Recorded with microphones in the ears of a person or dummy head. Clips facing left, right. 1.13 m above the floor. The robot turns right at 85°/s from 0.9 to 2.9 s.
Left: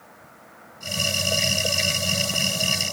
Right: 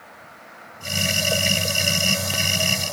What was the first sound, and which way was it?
Only background noise.